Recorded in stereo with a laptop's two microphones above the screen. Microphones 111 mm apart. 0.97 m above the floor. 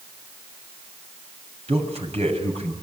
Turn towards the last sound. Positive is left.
turn(degrees=-65)  # may be behind; listen again after turning